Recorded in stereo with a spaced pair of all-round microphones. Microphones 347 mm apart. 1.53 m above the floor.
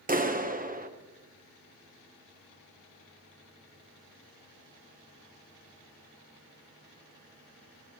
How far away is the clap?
About 1.0 m.